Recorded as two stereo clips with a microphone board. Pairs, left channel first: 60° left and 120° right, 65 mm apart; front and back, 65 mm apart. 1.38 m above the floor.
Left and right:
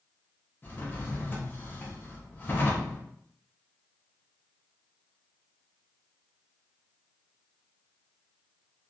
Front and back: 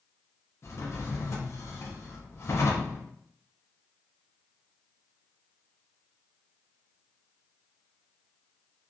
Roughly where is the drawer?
Ahead.